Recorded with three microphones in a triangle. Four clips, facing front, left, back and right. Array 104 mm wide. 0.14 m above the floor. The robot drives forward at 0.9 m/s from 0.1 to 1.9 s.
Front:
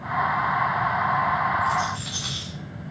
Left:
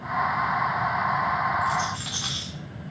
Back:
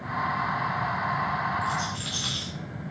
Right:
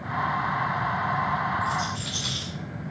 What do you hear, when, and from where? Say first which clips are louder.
1.6 s a rattle: left 2 dB, front 5 dB; 100° left, 3 m; by 2.5 s 105° left, 3 m